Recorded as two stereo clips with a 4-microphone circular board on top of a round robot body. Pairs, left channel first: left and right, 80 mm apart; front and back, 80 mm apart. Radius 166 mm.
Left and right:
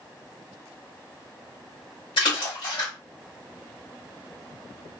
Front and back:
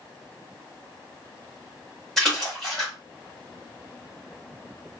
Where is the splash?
85° left, 1.8 m.